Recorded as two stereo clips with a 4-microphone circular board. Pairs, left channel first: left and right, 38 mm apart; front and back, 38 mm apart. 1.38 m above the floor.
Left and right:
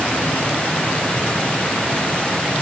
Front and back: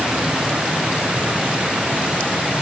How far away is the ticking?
I don't hear ticking.